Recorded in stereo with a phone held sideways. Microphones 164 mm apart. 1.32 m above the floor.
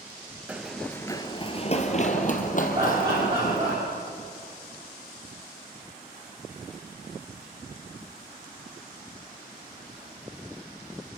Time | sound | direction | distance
0.5 | running footsteps | 10° right (ahead or behind) | 1.3 m
2.8 | laughter | 35° right (ahead or behind) | 5.5 m